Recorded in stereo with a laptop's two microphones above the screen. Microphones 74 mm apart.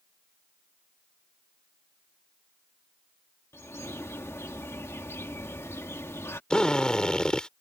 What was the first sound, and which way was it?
A bird, 35° left (ahead or behind).